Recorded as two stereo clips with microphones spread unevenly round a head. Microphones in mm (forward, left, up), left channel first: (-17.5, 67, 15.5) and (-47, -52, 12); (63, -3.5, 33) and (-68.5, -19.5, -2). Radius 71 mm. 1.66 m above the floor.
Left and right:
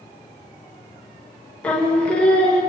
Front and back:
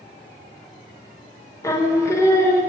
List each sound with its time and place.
1.6 s singing: 5° left, 0.6 m